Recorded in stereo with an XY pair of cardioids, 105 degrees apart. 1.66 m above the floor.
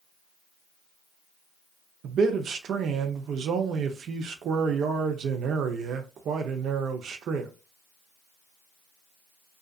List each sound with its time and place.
2.0 s a man speaking: 65° right, 0.6 m